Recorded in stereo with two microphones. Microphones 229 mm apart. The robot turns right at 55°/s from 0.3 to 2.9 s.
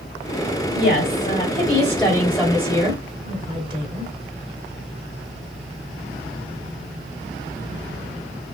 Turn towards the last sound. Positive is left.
turn(degrees=-145)